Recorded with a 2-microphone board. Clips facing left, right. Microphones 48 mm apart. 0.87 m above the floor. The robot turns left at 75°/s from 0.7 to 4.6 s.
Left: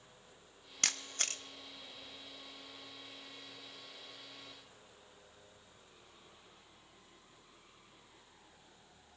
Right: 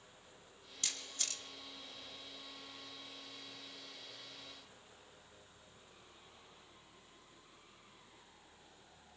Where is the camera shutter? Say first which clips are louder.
Left 6 dB; 60° left (ahead or behind), 0.9 m; by 1.4 s 40° left (ahead or behind), 0.9 m.